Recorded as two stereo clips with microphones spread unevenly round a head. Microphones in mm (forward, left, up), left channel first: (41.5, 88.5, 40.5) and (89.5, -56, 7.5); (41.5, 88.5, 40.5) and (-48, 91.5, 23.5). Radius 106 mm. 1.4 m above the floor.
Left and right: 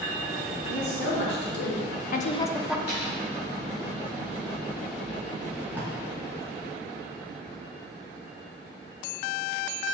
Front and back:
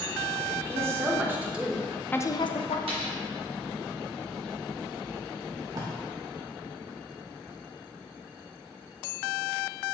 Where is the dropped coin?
165° left, 2 m.